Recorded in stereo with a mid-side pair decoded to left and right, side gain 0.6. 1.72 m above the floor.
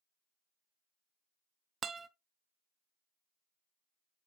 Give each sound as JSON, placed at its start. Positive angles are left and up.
{"t": 1.8, "sound": "a guitar", "azimuth_deg": -30, "distance_m": 0.8}